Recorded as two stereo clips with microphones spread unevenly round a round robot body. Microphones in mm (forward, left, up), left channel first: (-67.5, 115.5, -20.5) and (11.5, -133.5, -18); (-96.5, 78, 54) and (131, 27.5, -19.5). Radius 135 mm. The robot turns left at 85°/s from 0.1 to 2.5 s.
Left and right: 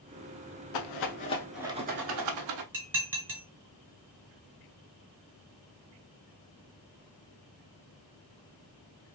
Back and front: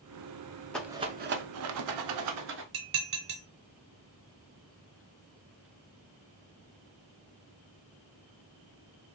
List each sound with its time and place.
0.7 s a rattle: 85° left, 0.6 m; by 2.6 s 65° right, 0.6 m
2.7 s dishes clattering: 10° left, 1.5 m